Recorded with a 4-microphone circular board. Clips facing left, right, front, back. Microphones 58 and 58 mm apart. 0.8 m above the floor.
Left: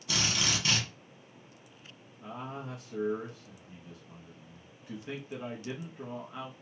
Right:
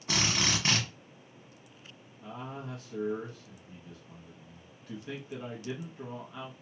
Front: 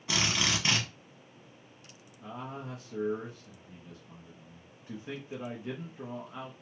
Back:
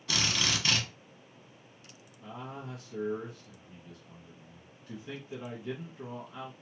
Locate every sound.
0.1 s a drill: 60° right, 1.1 m
2.2 s a man speaking: 35° left, 0.7 m